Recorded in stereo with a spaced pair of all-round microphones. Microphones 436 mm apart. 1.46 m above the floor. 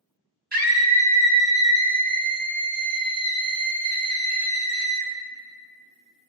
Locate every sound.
0.5 s a scream: 55° right (ahead or behind), 2 m